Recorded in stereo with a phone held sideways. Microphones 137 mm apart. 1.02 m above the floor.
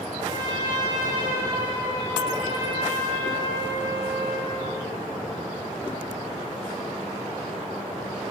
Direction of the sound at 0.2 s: 30° right (ahead or behind).